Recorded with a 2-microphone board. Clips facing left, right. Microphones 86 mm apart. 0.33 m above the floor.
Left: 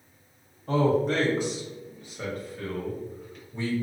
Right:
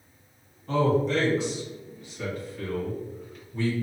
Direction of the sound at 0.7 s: 50° left (ahead or behind).